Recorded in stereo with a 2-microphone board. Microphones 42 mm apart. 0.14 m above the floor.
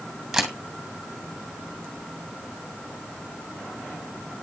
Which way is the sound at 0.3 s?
Centre (ahead or behind).